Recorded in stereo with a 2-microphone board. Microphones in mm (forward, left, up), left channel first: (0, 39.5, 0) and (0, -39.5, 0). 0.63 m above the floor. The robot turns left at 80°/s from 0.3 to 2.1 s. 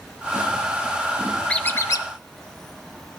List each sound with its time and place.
1.5 s a squeak: 170° left, 0.5 m; by 2.1 s 120° left, 0.5 m